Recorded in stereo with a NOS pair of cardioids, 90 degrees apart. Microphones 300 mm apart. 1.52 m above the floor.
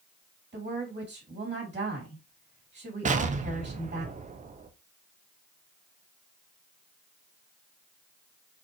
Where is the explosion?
25° right, 0.6 m.